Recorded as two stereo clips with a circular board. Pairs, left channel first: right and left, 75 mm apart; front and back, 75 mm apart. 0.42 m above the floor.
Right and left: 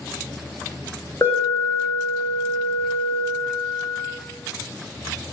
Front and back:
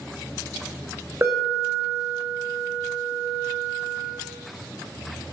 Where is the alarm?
135° right, 1.9 m.